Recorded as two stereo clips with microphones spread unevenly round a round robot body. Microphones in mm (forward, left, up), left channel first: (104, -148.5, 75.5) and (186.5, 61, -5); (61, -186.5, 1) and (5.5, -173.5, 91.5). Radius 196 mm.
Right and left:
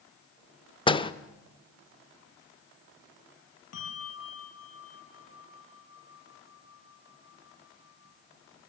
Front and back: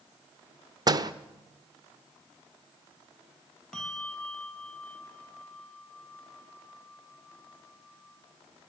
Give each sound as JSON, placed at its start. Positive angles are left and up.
{"t": 0.9, "sound": "a door slam", "azimuth_deg": -20, "distance_m": 0.9}
{"t": 3.7, "sound": "a bell", "azimuth_deg": -100, "distance_m": 3.5}